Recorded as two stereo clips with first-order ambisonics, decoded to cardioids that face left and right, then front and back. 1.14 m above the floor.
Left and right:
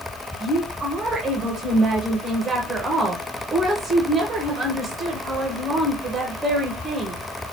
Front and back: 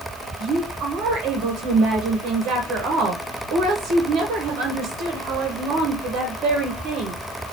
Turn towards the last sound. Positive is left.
turn(degrees=-155)